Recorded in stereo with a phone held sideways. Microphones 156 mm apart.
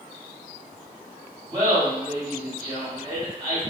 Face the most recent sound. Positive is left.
turn(degrees=-30)  # may be behind; listen again after turning